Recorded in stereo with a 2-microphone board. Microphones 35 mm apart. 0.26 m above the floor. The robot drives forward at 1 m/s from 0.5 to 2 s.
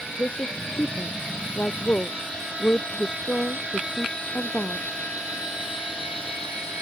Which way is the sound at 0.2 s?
55° left (ahead or behind).